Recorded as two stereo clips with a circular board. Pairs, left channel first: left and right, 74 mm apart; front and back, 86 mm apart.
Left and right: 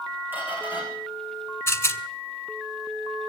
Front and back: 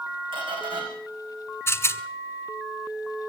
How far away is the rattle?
About 1.3 m.